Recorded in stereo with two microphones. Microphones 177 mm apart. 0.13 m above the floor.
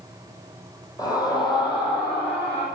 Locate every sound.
1.0 s a scream: 20° left (ahead or behind), 4.5 m; by 2.7 s 35° left (ahead or behind), 6 m